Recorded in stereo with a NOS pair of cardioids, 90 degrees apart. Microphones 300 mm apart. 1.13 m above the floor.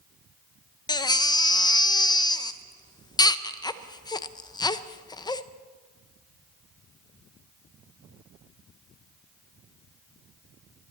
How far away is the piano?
I don't hear a piano.